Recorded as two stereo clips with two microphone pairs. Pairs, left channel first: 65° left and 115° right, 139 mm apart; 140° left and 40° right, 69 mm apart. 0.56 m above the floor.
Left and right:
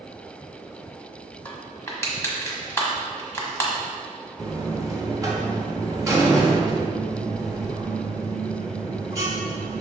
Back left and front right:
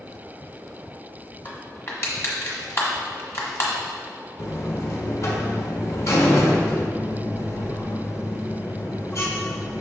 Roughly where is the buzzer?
Behind.